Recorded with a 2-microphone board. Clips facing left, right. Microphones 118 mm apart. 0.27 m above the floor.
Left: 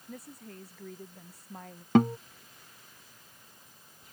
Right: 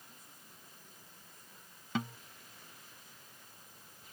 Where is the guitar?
60° left (ahead or behind).